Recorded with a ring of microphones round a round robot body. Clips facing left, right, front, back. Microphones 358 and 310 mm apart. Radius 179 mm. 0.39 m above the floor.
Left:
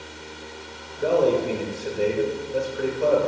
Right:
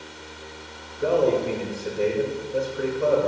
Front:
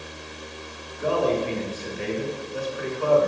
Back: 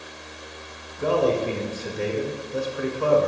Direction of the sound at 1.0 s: 175° right.